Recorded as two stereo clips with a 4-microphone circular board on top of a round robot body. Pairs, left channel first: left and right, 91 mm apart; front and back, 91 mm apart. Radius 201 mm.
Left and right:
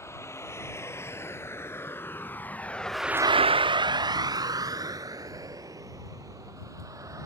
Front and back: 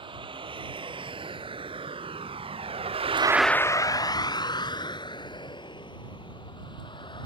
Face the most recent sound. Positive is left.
turn(degrees=-35)